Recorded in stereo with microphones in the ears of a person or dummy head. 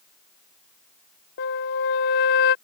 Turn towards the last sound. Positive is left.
turn(degrees=60)  # may be behind; listen again after turning